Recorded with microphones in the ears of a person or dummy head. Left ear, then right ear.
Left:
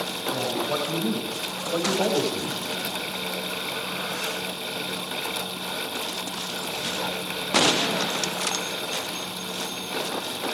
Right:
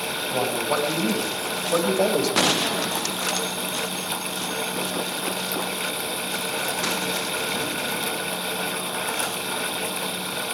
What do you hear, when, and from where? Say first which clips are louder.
0.3 s a man speaking: right 3 dB; 70° right (ahead or behind), 9 m; by 2.6 s 65° right (ahead or behind), 6 m